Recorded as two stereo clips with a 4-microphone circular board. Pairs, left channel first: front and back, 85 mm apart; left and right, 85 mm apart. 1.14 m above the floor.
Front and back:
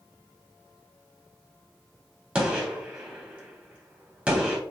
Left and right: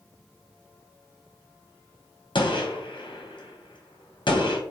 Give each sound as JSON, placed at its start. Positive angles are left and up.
{"t": 2.4, "sound": "a gunshot", "azimuth_deg": 105, "distance_m": 1.0}